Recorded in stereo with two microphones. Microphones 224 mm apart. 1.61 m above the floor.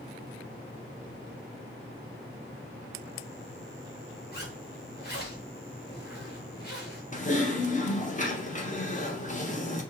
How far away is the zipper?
About 1.3 m.